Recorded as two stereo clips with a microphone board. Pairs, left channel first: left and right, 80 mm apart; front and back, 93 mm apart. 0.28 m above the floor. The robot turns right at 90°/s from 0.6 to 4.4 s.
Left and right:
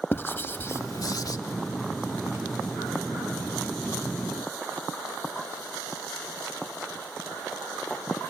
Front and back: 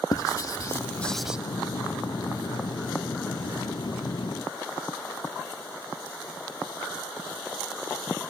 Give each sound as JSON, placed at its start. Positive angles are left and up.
{"t": 0.1, "sound": "writing", "azimuth_deg": 35, "distance_m": 0.5}